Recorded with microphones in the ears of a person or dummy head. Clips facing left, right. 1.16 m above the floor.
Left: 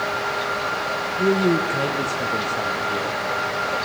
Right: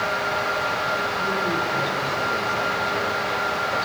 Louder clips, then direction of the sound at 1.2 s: Left 12 dB; 80° left.